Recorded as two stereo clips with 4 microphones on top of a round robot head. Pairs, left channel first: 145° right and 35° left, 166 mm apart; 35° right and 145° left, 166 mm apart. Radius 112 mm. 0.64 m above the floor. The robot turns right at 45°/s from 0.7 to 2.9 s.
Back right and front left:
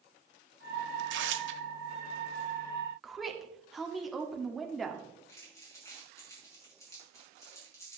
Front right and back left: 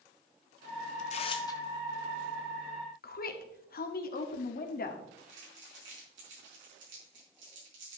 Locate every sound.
1.0 s tearing paper: 10° left, 0.9 m; by 1.6 s 40° left, 0.9 m
3.0 s a woman speaking: 55° right, 1.4 m
5.3 s crumpling: 140° left, 5 m